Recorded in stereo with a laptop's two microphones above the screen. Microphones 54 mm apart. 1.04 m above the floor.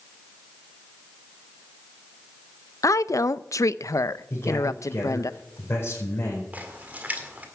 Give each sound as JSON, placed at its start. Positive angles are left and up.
{"t": 2.8, "sound": "a woman speaking", "side_deg": 70, "distance_m": 0.5}
{"t": 4.3, "sound": "a man speaking", "side_deg": 45, "distance_m": 5.0}
{"t": 6.5, "sound": "a splash", "side_deg": -30, "distance_m": 1.8}